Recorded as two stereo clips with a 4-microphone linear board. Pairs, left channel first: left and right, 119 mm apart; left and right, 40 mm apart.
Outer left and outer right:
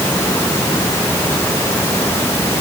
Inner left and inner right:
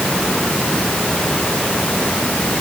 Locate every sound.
Only background noise.